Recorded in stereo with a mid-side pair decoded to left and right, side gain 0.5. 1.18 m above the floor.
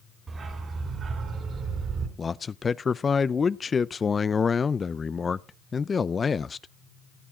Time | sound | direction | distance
0.3 | a dog barking | 40° right | 3 m
2.2 | a man speaking | 30° left | 0.5 m